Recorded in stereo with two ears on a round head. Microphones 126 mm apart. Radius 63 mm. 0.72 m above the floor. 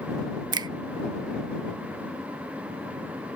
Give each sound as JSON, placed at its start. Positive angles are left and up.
{"t": 0.5, "sound": "a finger snap", "side_deg": -30}